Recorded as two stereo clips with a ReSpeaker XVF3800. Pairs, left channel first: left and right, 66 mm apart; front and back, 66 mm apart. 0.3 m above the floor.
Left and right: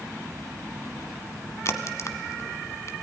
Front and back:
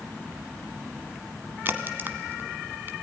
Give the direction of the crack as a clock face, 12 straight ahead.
8 o'clock.